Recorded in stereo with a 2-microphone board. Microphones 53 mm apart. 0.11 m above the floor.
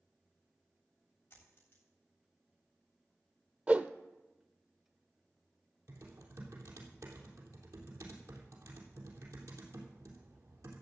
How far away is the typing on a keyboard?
About 3 m.